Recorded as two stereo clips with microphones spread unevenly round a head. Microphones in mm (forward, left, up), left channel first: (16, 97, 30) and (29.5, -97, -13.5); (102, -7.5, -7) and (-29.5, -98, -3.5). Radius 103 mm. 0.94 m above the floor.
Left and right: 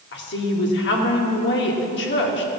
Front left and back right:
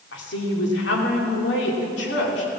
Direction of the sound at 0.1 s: 60° left.